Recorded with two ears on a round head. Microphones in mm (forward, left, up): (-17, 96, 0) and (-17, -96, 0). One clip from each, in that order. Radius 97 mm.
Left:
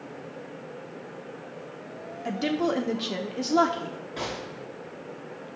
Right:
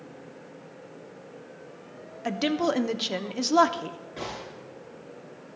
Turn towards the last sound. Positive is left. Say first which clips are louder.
# left 3 dB
turn(degrees=20)  # may be behind; listen again after turning